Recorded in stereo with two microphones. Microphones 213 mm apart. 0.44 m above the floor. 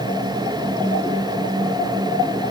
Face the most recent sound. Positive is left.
No sound to turn to.